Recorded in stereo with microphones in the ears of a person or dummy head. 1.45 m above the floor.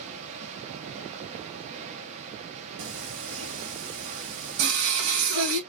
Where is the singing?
65° right (ahead or behind), 1.4 m.